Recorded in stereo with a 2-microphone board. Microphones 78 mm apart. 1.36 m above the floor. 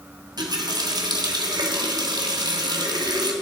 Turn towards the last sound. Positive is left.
turn(degrees=-65)  # may be behind; listen again after turning